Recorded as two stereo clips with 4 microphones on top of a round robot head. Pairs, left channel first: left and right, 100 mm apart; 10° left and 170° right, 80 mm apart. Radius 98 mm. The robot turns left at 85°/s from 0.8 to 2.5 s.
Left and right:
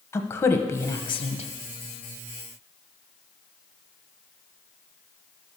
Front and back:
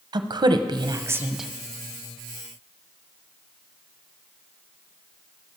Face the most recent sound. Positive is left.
turn(degrees=10)